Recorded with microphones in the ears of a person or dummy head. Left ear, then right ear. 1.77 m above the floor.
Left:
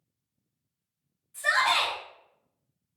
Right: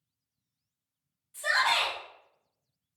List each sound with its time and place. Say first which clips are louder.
1.3 s a shout: left 2 dB; 25° right (ahead or behind), 1.4 m